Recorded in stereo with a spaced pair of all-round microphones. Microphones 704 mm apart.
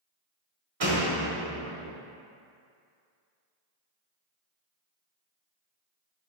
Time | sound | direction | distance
0.8 | a door slam | 40° right (ahead or behind) | 1.1 m